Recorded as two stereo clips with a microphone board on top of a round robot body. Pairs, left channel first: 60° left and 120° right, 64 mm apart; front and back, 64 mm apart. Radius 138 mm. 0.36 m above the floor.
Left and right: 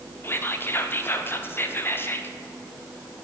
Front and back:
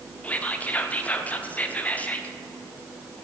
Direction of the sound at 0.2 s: 50° left.